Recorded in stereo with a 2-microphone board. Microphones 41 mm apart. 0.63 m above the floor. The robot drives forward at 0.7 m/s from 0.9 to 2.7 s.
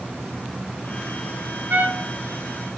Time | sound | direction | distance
1.7 | a trumpet | 50° right (ahead or behind) | 2.5 m